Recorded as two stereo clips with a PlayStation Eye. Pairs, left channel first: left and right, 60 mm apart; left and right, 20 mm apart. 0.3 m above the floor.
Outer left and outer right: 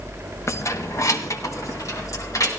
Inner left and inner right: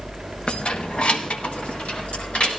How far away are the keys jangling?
About 0.9 m.